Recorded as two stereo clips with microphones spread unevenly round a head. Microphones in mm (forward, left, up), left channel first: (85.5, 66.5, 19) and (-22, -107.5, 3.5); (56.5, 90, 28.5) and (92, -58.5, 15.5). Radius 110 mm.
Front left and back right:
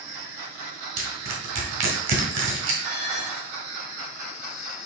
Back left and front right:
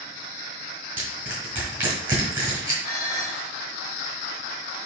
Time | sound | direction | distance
1.0 | crushing | 160° right | 2.0 m
2.8 | dishes clattering | 175° left | 1.9 m